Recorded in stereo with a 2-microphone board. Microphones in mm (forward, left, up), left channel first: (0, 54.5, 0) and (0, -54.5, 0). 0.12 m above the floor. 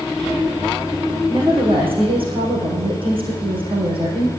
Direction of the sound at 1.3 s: 55° right (ahead or behind).